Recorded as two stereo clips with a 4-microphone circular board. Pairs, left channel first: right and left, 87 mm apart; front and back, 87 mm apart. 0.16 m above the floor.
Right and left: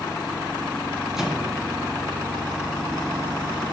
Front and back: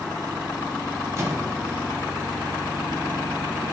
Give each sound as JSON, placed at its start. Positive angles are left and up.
{"t": 1.2, "sound": "a microwave", "azimuth_deg": 175, "distance_m": 1.1}